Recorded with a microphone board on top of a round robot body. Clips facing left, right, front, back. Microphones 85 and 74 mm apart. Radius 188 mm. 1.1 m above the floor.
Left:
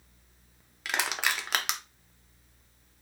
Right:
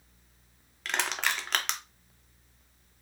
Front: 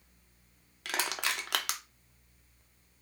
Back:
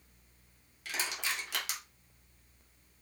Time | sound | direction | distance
0.8 | crushing | 10° left | 0.9 m